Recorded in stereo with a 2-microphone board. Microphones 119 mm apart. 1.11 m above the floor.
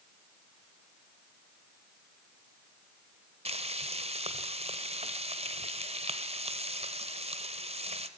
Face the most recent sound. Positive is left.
turn(degrees=-60)  # may be behind; listen again after turning